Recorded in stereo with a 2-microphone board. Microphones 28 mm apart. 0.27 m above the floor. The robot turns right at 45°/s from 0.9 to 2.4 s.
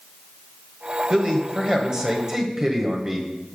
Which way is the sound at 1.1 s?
20° right (ahead or behind).